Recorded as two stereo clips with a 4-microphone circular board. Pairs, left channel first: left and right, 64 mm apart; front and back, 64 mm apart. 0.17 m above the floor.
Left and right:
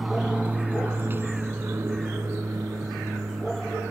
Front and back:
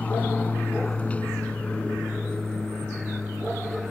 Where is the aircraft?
15° right; by 3.9 s 75° right.